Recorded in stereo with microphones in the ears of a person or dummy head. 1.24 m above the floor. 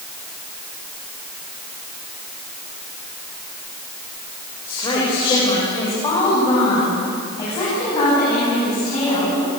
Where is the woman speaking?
20° left (ahead or behind), 4.5 m.